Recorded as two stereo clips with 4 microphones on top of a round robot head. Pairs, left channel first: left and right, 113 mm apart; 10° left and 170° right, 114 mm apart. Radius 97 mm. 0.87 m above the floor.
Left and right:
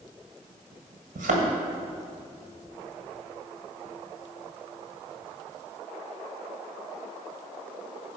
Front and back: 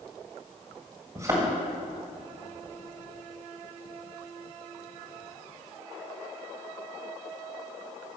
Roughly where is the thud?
Right.